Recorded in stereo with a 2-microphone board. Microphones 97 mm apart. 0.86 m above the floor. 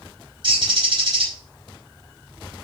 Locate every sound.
0.4 s a bird: 50° right (ahead or behind), 5 m